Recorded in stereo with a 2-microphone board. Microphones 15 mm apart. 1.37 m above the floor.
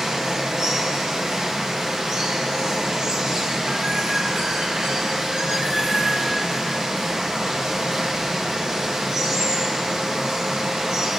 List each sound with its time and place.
0.0 s running water: 45° right (ahead or behind), 1.0 m